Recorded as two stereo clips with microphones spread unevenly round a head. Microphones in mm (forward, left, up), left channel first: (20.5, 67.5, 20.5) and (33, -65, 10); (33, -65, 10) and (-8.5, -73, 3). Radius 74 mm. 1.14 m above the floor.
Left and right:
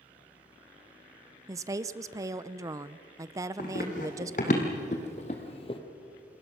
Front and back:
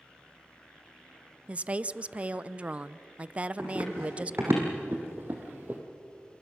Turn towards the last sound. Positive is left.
turn(degrees=130)